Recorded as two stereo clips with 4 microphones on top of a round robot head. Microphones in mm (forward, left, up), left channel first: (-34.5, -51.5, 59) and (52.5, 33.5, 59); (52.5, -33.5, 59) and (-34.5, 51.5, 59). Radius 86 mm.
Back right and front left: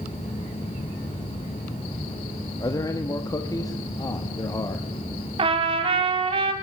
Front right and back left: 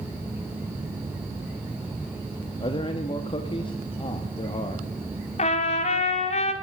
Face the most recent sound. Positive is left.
turn(degrees=-5)